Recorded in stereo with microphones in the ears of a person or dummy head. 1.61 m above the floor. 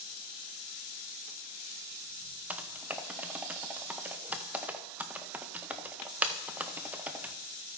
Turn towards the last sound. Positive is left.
turn(degrees=-5)  # may be behind; listen again after turning